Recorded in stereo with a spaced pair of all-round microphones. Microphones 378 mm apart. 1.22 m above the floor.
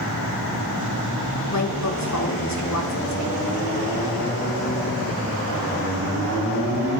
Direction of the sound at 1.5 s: 45° left (ahead or behind).